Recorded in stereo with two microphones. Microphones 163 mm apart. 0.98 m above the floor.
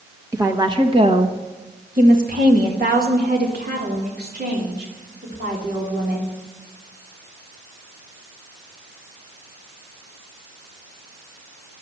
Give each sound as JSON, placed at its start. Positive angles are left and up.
{"t": 0.3, "sound": "a woman speaking", "side_deg": -20, "distance_m": 1.3}